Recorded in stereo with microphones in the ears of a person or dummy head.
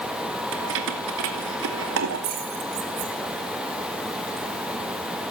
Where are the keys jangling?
70° right (ahead or behind), 2 m; by 4.8 s 50° right (ahead or behind), 3.5 m.